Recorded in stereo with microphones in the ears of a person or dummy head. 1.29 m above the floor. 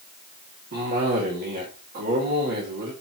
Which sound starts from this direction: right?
A cough, at 0.7 s.